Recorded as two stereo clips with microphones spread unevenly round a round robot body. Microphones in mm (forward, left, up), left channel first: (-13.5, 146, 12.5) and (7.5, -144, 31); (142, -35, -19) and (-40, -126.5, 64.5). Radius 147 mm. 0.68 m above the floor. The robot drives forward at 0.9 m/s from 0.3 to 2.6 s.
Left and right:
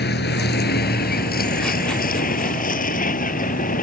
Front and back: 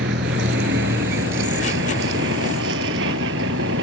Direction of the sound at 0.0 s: 150° left.